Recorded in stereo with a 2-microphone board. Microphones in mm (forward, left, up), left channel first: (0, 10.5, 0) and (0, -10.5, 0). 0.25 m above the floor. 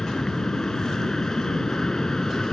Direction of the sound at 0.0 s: 30° left (ahead or behind).